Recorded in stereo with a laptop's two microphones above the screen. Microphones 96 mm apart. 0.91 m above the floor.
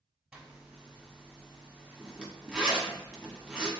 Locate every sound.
0.3 s a zipper: 5° right (ahead or behind), 1.0 m